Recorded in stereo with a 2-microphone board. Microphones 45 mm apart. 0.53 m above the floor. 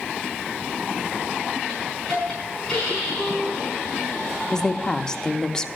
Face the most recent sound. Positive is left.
turn(degrees=15)  # may be behind; listen again after turning